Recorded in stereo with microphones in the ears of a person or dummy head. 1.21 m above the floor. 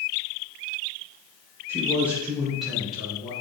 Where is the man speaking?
15° right (ahead or behind), 0.9 m; by 3.3 s centre (ahead or behind), 1.6 m.